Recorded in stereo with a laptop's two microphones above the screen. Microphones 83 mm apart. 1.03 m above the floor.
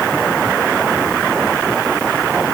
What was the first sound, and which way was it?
Only background noise.